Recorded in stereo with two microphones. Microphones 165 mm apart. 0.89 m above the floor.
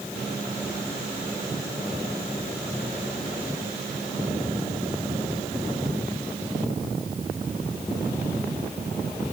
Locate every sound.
Only background noise.